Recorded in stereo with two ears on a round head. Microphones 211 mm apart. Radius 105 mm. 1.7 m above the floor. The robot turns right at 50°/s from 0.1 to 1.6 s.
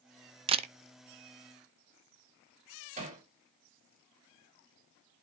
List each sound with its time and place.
0.5 s a camera shutter: 25° right (ahead or behind), 0.5 m; by 0.7 s 30° right (ahead or behind), 0.5 m
3.0 s hammering: 35° right (ahead or behind), 3 m